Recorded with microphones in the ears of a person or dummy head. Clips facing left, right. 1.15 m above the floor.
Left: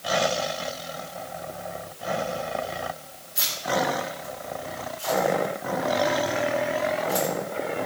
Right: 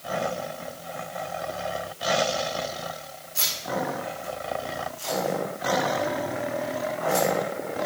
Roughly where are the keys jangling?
Right.